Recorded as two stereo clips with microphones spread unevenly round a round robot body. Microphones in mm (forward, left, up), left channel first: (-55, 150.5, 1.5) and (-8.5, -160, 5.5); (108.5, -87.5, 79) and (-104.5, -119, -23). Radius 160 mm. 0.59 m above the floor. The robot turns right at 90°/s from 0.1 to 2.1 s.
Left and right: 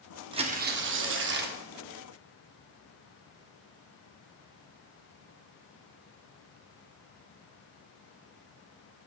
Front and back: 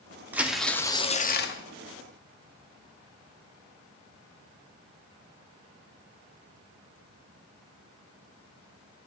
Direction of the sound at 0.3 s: 145° right.